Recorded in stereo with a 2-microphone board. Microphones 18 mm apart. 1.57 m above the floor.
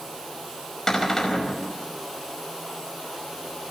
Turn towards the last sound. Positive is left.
turn(degrees=25)  # may be behind; listen again after turning